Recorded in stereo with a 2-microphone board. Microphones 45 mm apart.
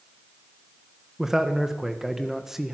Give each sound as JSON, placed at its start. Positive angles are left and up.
{"t": 1.2, "sound": "a man speaking", "side_deg": -5, "distance_m": 1.4}